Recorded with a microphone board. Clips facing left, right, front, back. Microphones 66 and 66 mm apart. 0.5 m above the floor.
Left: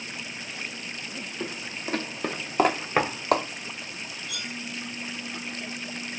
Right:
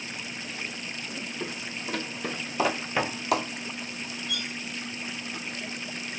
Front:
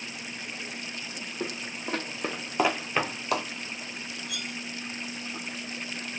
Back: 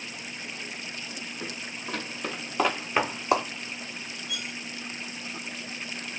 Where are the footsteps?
35° left, 1.1 m; by 3.5 s 130° left, 0.8 m.